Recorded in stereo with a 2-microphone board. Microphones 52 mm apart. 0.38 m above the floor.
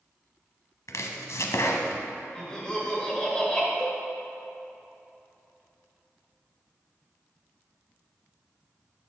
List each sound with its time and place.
0.9 s chopping: 80° left, 0.8 m
2.4 s laughter: 15° left (ahead or behind), 1.8 m
3.8 s a cowbell: 20° left (ahead or behind), 2.5 m